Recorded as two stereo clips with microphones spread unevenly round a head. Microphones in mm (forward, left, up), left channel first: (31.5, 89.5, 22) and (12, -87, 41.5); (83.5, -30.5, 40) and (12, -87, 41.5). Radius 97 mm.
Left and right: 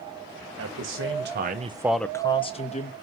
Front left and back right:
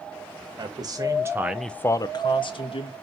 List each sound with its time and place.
0.6 s a man speaking: 105° right, 1.8 m; by 2.9 s 40° left, 1.9 m